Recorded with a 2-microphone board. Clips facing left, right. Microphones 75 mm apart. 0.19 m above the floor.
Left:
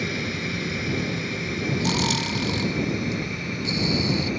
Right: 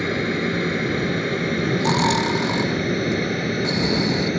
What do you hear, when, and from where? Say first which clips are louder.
0.0 s an aircraft: right 6 dB; 45° right (ahead or behind); by 4.4 s 65° right (ahead or behind)
1.8 s snoring: right 7 dB; 40° right (ahead or behind)